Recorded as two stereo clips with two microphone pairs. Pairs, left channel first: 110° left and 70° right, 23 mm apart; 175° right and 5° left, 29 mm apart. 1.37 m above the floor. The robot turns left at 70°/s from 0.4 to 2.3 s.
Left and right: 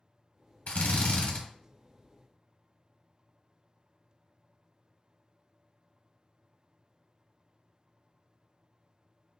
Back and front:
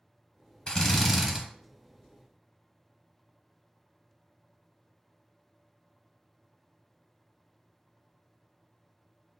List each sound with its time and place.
0.7 s a drill: 120° left, 1.0 m; by 1.4 s 70° left, 1.0 m